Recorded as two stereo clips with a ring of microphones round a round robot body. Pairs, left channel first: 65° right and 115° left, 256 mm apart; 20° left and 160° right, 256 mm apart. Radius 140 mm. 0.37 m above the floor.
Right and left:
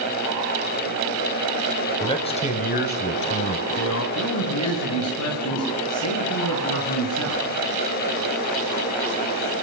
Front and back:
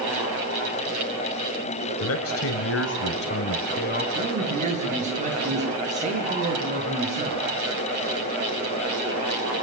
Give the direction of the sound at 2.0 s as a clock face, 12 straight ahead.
12 o'clock.